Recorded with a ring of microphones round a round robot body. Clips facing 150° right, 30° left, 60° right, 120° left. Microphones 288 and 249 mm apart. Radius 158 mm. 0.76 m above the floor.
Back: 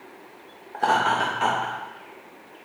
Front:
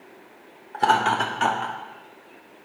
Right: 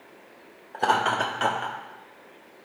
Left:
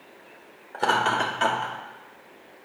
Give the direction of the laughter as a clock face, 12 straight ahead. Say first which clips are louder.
Front 1 dB, even; 11 o'clock.